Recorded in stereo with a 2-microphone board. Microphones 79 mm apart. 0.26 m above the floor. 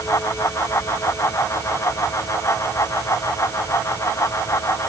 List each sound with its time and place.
Only background noise.